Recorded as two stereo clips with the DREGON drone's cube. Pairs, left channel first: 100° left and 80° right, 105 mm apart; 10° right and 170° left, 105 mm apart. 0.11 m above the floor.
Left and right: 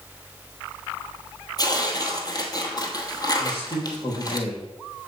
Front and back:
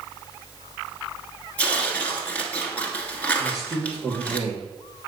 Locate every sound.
1.6 s tearing paper: 60° left, 1.2 m
3.4 s a man speaking: 120° left, 3.5 m